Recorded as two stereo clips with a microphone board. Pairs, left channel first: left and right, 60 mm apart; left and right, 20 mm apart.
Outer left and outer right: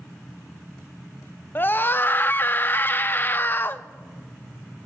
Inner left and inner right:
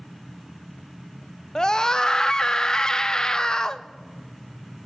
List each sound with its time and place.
1.6 s a scream: 35° left (ahead or behind), 0.6 m